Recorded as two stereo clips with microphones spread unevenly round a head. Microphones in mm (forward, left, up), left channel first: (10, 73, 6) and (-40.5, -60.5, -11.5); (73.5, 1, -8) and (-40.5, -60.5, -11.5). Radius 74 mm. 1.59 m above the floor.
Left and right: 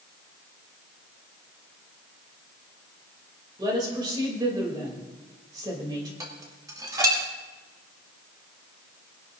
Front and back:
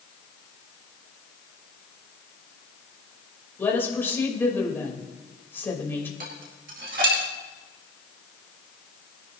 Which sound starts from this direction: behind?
Dishes clattering, at 6.2 s.